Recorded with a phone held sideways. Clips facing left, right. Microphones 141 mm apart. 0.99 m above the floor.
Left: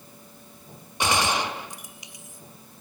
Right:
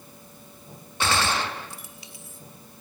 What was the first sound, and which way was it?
A gunshot, 15° left (ahead or behind).